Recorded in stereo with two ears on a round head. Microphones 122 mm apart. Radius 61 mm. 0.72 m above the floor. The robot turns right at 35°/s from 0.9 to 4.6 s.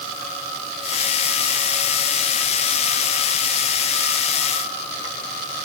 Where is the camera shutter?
No camera shutter in this recording.